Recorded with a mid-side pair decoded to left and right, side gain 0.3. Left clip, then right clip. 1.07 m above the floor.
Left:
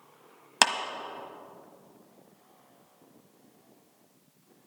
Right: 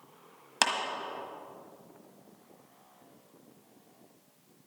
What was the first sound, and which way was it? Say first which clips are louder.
A clap: left 4 dB; 60° left.